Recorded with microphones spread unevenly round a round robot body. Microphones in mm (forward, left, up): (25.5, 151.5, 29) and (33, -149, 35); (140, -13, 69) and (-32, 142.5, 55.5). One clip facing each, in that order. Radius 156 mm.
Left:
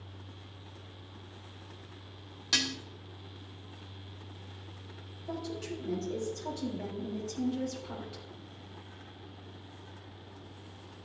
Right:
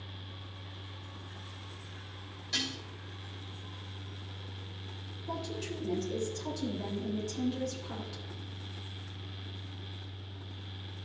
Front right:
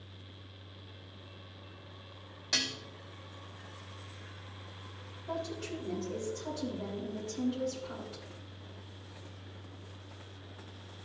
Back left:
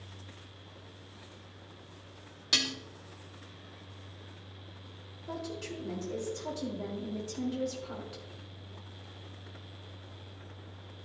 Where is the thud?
I don't hear a thud.